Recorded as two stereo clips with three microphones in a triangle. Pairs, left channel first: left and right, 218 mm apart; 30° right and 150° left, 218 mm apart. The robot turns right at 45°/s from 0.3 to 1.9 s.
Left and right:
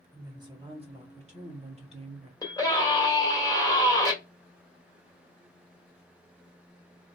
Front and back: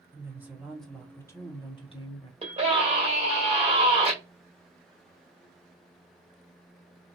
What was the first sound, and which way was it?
A woman speaking, 140° right.